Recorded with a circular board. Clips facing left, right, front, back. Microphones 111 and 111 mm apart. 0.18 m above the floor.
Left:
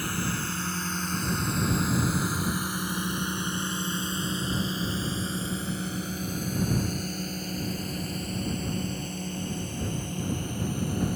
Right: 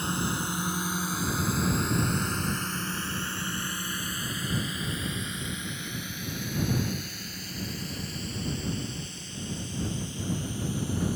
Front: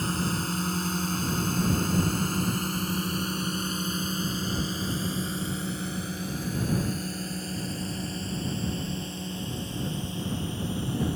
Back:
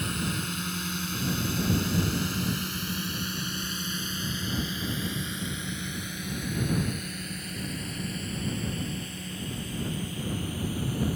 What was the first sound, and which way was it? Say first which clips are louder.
A drone: right 1 dB, front 3 dB; 35° right.